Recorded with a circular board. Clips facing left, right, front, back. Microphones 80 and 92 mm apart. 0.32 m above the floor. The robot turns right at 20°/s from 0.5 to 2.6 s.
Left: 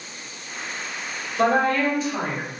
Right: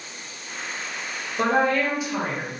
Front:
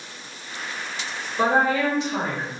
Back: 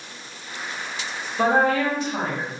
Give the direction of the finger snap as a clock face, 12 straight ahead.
I don't hear a finger snap.